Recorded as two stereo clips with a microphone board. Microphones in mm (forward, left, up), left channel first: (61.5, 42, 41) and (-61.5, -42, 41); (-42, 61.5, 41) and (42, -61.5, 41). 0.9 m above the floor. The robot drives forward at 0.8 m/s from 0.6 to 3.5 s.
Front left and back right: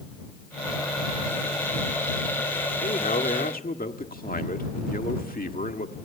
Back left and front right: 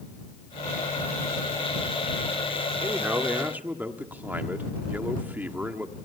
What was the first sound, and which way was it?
A man speaking, 15° left.